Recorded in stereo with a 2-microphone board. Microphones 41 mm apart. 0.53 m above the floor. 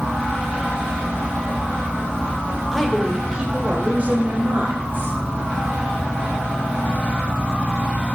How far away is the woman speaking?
About 1.7 m.